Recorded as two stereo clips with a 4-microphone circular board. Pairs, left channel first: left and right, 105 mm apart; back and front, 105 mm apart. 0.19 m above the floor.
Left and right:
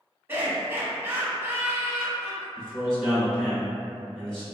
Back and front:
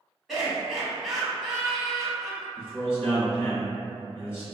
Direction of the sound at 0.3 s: 85° right.